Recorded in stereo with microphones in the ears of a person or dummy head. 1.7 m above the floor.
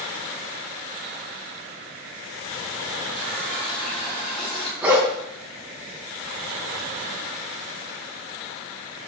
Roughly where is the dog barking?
Centre.